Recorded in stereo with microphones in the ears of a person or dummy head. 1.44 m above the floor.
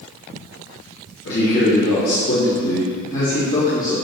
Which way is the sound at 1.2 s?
60° left (ahead or behind).